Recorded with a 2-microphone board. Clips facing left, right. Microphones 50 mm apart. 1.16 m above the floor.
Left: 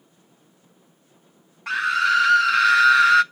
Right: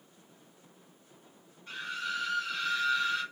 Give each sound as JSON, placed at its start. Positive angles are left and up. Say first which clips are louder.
{"t": 1.7, "sound": "a scream", "louder": "left 17 dB", "side_deg": 85, "distance_m": 0.5}